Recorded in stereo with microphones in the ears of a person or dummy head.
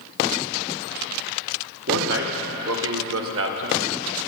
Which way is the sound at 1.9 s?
65° right (ahead or behind).